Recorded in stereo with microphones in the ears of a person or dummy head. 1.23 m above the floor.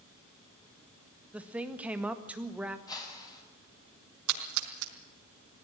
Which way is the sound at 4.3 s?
80° right.